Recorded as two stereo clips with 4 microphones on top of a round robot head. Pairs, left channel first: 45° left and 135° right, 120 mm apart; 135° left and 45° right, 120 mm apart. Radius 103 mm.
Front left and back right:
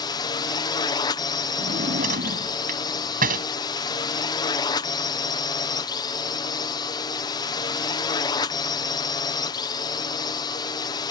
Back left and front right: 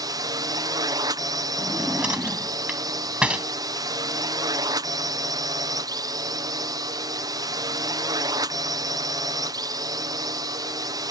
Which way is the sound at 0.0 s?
Straight ahead.